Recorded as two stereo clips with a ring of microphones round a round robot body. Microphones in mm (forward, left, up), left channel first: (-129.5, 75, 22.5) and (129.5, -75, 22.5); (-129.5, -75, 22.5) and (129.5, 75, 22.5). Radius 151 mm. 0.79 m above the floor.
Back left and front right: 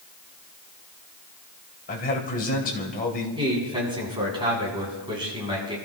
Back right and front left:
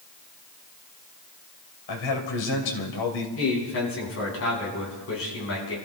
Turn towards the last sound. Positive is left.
turn(degrees=-105)